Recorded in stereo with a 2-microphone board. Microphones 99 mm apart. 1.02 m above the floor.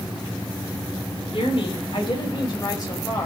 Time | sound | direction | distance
1.3 | a woman speaking | 65° left (ahead or behind) | 4.5 m